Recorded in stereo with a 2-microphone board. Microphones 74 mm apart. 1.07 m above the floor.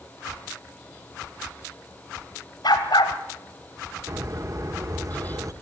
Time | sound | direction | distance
2.6 | a dog barking | 75° left (ahead or behind) | 2.5 m
4.1 | a bird | 45° right (ahead or behind) | 1.3 m